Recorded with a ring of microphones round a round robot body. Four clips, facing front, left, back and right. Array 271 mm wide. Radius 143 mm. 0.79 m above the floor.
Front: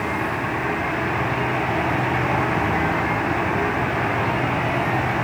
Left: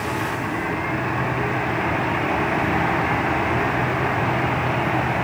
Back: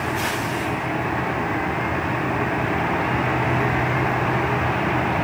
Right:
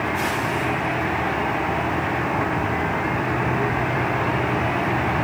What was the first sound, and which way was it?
Only background noise.